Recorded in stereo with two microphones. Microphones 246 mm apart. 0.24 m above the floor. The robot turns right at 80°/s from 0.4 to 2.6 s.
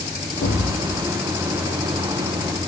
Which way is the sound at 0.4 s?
65° left.